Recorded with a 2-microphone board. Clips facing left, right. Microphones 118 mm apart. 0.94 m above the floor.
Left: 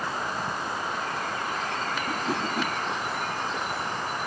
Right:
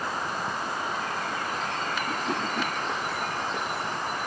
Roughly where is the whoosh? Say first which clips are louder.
Left 1 dB; centre.